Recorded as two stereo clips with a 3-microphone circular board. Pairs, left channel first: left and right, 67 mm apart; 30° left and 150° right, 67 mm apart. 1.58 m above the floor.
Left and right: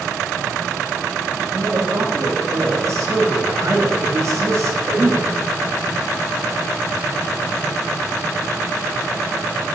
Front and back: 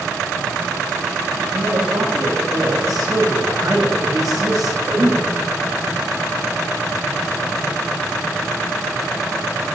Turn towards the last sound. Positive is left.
turn(degrees=-130)